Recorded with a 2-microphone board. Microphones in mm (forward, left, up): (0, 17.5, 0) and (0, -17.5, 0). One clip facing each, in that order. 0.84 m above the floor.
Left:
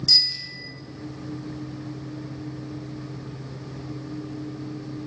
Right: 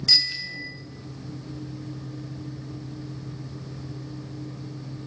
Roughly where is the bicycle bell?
Right.